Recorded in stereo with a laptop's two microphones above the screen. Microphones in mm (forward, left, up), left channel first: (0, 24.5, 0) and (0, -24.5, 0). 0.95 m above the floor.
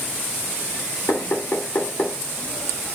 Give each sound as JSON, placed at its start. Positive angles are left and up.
{"t": 1.1, "sound": "knocking", "side_deg": 70, "distance_m": 2.5}